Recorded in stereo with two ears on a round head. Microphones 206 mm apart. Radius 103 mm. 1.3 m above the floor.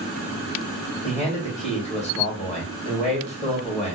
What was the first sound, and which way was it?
A man speaking, 5° left (ahead or behind).